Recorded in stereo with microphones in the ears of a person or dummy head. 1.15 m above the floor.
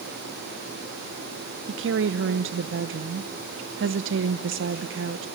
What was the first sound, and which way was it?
A woman speaking, 55° right (ahead or behind).